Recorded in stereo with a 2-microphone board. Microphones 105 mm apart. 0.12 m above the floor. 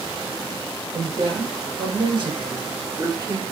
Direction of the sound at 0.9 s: 55° right (ahead or behind).